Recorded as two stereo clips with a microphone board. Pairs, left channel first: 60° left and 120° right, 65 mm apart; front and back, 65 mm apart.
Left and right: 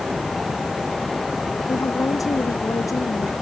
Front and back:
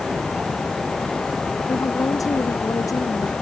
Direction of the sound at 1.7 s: 30° left.